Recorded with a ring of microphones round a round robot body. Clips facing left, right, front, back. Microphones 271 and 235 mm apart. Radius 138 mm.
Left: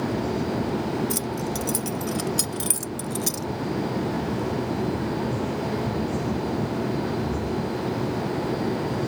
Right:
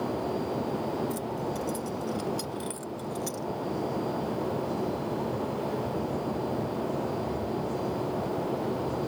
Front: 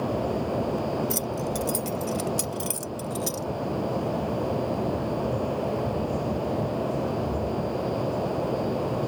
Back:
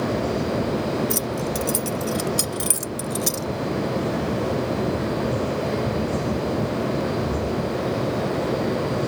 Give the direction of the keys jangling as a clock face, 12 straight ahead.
9 o'clock.